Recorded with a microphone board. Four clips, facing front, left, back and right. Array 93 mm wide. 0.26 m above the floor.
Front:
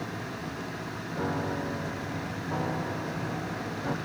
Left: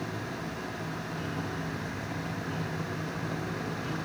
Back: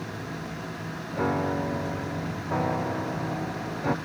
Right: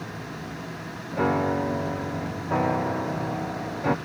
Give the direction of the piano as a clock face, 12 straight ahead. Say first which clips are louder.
Right 16 dB, back 5 dB; 4 o'clock.